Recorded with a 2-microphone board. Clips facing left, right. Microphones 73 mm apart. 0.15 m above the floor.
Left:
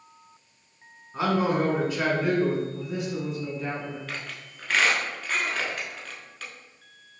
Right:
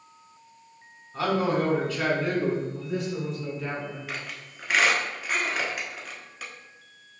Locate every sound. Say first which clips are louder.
1.1 s a man speaking: left 1 dB; 25° left (ahead or behind), 1.2 m
2.7 s a man speaking: right 1 dB; 5° left (ahead or behind), 1.4 m
4.1 s a squeak: even; 10° right (ahead or behind), 0.8 m